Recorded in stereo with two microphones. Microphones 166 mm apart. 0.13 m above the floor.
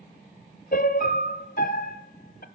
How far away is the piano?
About 0.9 m.